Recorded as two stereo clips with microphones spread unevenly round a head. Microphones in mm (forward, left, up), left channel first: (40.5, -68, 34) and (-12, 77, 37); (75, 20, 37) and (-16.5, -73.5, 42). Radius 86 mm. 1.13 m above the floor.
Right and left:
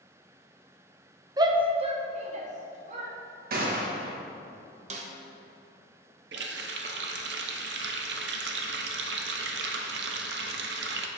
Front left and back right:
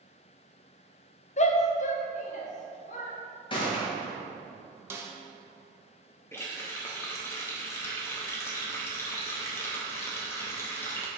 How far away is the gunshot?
About 1.3 m.